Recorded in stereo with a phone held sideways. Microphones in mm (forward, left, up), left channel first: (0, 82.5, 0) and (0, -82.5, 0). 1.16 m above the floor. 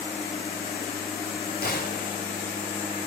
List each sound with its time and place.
1.6 s a gunshot: 60° left (ahead or behind), 2.5 m